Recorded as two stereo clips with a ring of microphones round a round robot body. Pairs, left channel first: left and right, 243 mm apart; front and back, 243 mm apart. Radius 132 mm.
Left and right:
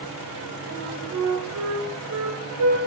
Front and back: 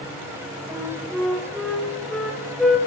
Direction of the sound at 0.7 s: 90° right.